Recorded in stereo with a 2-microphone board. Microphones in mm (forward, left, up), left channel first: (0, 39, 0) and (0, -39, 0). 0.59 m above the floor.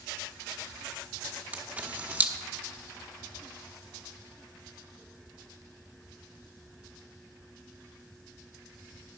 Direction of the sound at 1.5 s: 20° right (ahead or behind).